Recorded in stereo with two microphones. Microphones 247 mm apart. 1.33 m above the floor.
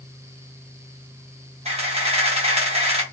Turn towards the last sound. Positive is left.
turn(degrees=-25)  # may be behind; listen again after turning